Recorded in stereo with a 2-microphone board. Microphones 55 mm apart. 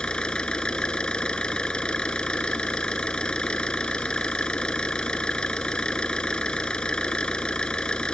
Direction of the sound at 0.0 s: 15° left (ahead or behind).